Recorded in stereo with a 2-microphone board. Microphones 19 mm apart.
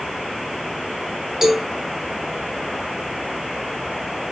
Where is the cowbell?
25° right (ahead or behind), 3 m.